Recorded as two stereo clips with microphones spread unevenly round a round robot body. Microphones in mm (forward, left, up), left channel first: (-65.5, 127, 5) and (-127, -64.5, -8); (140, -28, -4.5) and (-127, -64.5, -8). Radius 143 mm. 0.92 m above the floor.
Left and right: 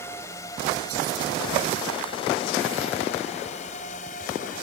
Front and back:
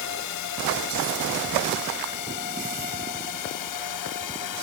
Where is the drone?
10° right; by 4.6 s 10° left.